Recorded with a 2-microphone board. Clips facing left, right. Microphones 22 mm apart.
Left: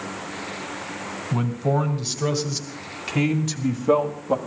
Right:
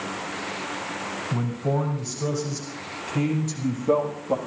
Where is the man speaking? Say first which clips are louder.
Left 4 dB; 65° left (ahead or behind), 3.5 m; by 4.4 s 25° left (ahead or behind), 1.7 m.